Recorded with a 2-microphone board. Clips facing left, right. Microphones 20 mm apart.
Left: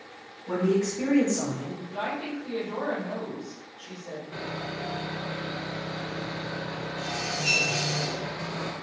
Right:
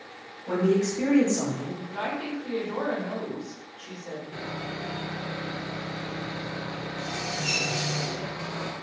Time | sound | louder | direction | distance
0.5 | a man speaking | right 1 dB | 35° right (ahead or behind) | 1.3 m
1.8 | a woman speaking | even | 55° right (ahead or behind) | 1.1 m
4.3 | sawing | left 2 dB | 35° left (ahead or behind) | 0.6 m